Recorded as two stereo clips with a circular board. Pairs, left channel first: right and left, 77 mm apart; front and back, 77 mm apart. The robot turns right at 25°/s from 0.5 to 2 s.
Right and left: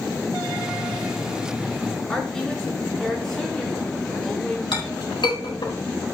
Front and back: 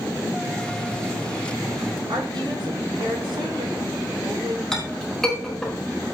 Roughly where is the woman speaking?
Behind.